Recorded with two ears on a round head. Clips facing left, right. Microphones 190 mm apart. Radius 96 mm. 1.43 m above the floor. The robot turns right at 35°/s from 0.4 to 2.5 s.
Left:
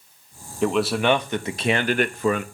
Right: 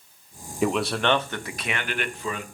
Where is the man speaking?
5° right, 0.6 m; by 2.4 s 60° left, 0.6 m.